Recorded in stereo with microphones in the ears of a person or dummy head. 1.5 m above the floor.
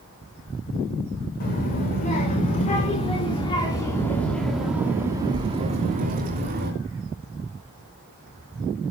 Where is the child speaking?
45° left (ahead or behind), 5 m; by 6.7 s 45° right (ahead or behind), 3.5 m.